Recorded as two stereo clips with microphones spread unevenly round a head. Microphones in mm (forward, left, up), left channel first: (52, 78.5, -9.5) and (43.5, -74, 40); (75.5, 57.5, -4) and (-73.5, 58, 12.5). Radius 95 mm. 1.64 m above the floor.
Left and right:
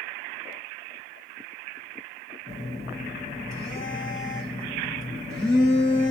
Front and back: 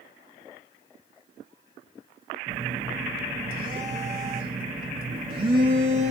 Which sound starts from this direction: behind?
A phone buzzing, at 2.5 s.